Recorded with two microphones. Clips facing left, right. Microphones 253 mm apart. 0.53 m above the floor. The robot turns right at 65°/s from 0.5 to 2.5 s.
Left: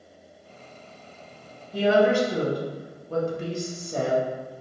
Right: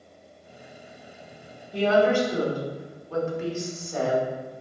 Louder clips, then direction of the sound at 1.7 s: Left 1 dB; 5° left.